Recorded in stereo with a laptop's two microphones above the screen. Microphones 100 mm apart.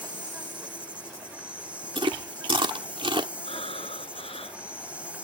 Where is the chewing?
60° right (ahead or behind).